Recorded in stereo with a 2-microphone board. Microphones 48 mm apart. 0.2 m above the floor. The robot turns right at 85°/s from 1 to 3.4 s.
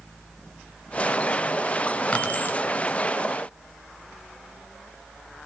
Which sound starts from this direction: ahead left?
Keys jangling, at 2.1 s.